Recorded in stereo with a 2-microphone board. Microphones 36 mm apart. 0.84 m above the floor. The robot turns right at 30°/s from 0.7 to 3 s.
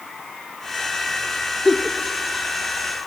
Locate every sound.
1.6 s a giggle: centre (ahead or behind), 1.0 m; by 2.0 s 5° left (ahead or behind), 1.0 m